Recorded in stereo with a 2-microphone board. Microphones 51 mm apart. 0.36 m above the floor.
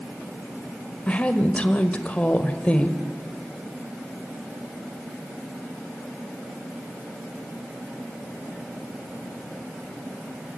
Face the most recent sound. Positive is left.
turn(degrees=25)  # may be behind; listen again after turning